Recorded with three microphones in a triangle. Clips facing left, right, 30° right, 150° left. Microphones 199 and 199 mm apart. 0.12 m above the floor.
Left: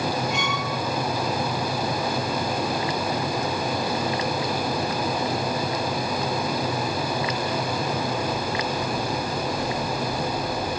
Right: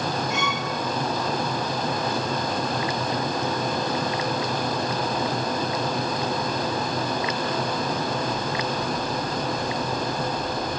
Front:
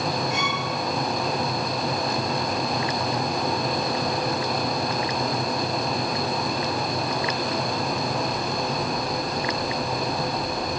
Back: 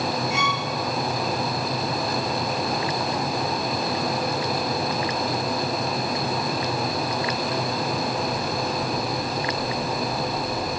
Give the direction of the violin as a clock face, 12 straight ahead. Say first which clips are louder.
Even, back 1 dB; 12 o'clock.